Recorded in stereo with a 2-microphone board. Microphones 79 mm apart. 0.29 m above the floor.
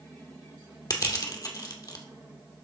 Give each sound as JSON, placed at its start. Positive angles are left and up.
{"t": 0.9, "sound": "crushing", "side_deg": 50, "distance_m": 1.2}